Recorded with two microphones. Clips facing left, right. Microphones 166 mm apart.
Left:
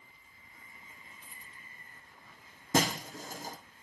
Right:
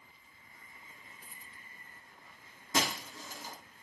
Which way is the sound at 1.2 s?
40° right (ahead or behind).